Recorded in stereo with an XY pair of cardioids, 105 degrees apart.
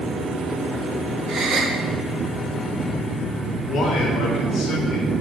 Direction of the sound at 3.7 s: 60° left.